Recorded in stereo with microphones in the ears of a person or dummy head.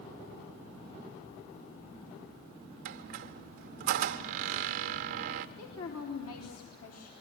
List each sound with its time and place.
2.9 s a squeak: 50° right (ahead or behind), 0.8 m
5.6 s a woman speaking: 80° left, 3.5 m